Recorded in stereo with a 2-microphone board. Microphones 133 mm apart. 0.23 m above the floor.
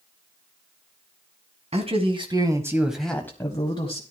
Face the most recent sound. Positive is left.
turn(degrees=45)  # may be behind; listen again after turning